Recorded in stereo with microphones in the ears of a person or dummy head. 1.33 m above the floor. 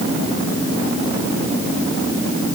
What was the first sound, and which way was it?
Only background noise.